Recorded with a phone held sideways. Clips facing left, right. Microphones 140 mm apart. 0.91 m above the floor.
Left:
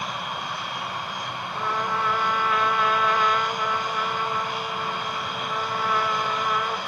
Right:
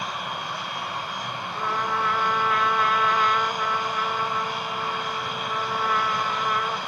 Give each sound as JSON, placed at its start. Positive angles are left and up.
{"t": 1.6, "sound": "a trumpet", "side_deg": 0, "distance_m": 1.3}